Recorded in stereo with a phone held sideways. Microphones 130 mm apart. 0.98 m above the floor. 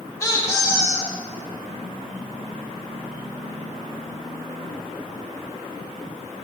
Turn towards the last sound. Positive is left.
turn(degrees=20)  # may be behind; listen again after turning